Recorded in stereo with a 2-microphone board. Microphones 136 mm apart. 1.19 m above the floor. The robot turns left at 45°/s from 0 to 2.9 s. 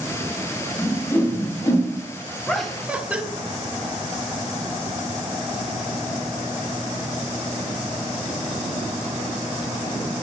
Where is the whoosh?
5° left (ahead or behind), 3 m; by 1.9 s 50° left (ahead or behind), 3 m.